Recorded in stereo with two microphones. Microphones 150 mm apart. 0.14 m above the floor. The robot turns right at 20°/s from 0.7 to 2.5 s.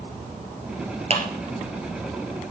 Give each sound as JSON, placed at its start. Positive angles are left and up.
{"t": 1.1, "sound": "a clap", "side_deg": -45, "distance_m": 2.5}